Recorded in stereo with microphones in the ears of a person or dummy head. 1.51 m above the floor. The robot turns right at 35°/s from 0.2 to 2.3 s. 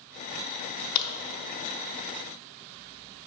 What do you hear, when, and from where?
0.9 s a crack: 50° left (ahead or behind), 0.5 m; by 1.1 s 55° left (ahead or behind), 0.5 m